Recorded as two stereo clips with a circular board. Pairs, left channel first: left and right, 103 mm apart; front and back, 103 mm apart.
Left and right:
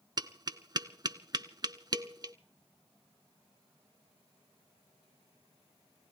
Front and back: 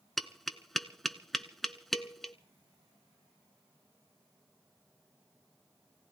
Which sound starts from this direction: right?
Tapping, at 0.2 s.